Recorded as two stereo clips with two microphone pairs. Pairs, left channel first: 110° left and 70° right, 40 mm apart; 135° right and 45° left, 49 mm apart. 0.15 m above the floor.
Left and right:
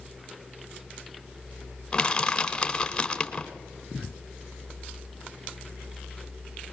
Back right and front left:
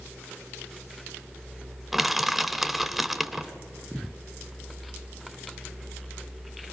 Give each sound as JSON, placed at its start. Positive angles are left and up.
{"t": 1.9, "sound": "crushing", "azimuth_deg": 125, "distance_m": 1.2}